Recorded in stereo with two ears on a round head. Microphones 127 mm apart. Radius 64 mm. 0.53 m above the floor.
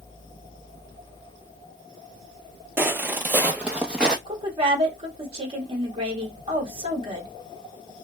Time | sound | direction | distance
2.8 | footsteps | 15° right (ahead or behind) | 0.5 m
4.3 | a woman speaking | 40° right (ahead or behind) | 1.2 m